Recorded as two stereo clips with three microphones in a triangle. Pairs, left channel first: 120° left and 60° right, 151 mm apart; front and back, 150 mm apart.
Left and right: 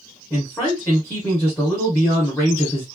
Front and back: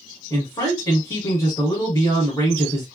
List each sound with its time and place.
0.3 s a man speaking: 55° left, 1.6 m